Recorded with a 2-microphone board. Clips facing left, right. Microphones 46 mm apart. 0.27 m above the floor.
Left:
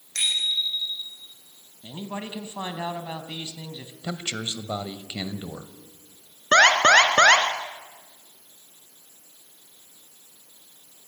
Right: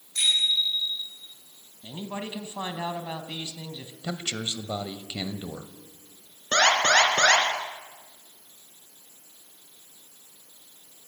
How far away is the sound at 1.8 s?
About 2.5 m.